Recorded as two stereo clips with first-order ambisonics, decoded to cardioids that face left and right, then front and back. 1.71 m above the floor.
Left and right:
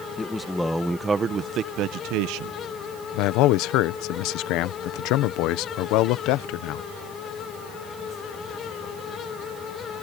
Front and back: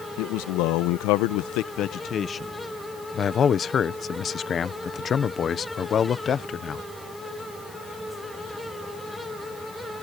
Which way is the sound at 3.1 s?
65° left.